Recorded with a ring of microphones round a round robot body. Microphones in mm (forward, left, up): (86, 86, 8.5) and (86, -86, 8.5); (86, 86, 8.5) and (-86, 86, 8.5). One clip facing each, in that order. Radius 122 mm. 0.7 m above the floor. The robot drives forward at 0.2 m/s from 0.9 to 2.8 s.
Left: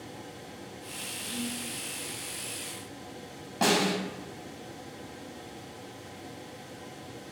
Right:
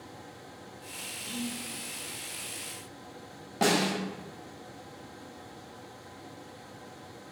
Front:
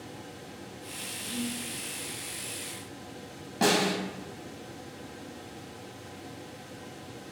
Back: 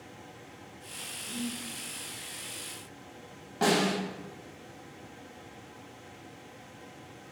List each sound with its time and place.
1.2 s whispering: 30° left, 0.6 m; by 1.6 s 35° left, 0.6 m
3.6 s a snare drum: 15° right, 0.9 m